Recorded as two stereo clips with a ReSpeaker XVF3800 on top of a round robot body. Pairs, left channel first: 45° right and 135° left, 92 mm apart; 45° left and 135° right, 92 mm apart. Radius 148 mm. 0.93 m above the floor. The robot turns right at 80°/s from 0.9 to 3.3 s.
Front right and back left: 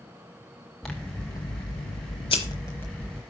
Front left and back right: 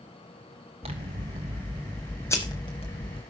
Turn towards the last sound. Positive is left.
turn(degrees=65)